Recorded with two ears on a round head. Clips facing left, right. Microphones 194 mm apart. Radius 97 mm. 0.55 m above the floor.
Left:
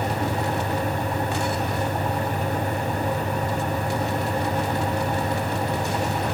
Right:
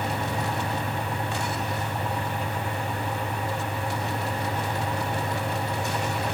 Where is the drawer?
No drawer in this recording.